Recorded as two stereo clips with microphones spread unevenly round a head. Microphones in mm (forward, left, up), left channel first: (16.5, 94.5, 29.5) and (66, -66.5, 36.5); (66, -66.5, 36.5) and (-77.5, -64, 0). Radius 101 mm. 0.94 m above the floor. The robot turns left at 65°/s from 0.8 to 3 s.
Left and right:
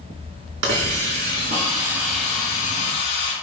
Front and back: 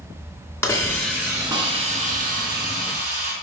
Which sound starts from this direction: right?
A hiss, at 0.6 s.